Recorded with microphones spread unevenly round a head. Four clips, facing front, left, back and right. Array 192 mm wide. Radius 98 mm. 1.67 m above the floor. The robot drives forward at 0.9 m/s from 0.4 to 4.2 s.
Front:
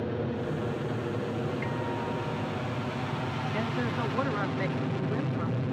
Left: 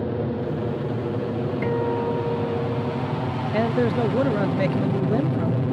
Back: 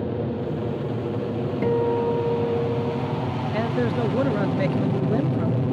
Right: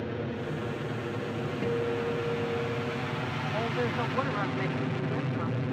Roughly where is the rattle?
I don't hear a rattle.